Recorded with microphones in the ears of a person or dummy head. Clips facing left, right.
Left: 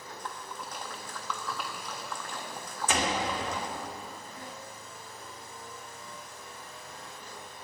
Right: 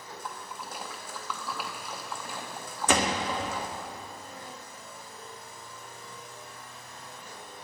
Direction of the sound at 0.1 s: Centre (ahead or behind).